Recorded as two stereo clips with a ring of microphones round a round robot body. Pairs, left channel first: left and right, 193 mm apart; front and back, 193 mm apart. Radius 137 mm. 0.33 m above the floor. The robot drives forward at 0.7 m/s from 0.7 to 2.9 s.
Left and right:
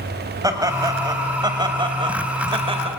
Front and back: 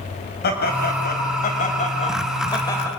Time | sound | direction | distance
0.4 | laughter | 25° right | 2.5 m